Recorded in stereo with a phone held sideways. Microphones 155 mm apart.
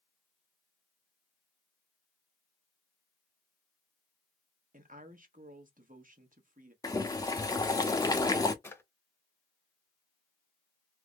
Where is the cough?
I don't hear a cough.